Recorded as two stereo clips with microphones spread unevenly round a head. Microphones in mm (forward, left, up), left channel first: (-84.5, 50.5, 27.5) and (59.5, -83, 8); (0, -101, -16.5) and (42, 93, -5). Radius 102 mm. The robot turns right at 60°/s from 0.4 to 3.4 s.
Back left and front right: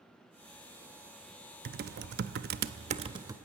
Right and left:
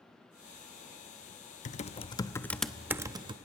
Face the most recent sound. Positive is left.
turn(degrees=35)